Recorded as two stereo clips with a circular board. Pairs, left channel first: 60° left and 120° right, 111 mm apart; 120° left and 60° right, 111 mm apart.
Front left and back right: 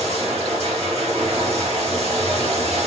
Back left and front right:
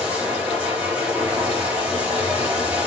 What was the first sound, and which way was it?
Running water, 135° right.